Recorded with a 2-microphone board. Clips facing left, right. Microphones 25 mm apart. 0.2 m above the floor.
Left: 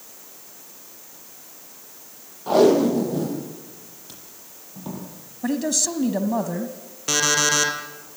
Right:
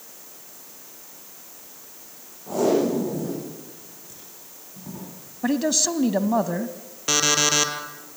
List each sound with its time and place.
2.5 s tape being pulled: 50° left (ahead or behind), 7.5 m
5.4 s a man speaking: 15° right (ahead or behind), 1.1 m
7.1 s an alarm clock: 5° right (ahead or behind), 3.5 m